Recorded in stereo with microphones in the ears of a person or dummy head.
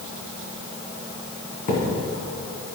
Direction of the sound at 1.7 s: 50° left (ahead or behind).